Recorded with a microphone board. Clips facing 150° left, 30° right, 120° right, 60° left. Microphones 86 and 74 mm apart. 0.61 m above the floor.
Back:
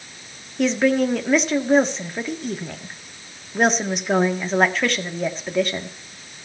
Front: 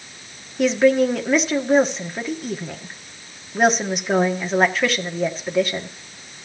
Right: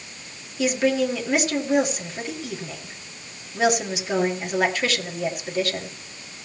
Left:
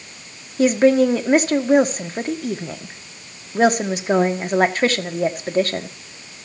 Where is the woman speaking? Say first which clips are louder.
Front 3 dB, left 7 dB; 60° left, 1.2 m.